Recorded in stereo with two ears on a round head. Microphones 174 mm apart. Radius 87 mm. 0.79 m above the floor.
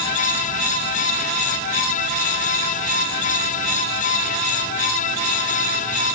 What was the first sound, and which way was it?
Only background noise.